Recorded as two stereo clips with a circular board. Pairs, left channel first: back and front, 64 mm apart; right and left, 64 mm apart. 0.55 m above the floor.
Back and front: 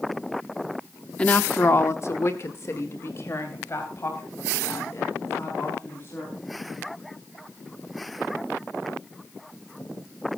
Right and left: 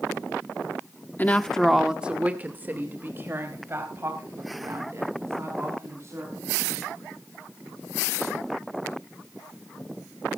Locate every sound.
1.2 s a woman speaking: 120° right, 0.8 m; by 6.4 s 135° left, 5.5 m